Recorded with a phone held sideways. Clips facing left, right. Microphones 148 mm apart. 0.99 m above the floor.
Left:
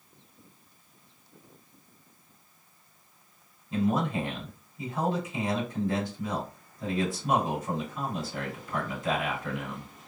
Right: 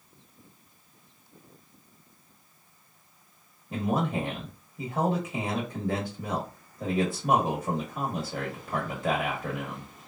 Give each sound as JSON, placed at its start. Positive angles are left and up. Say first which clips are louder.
{"t": 3.7, "sound": "a man speaking", "louder": "left 1 dB", "side_deg": -65, "distance_m": 1.4}